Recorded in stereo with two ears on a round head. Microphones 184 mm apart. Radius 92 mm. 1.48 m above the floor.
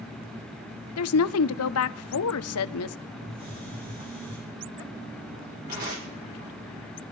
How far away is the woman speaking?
About 0.6 m.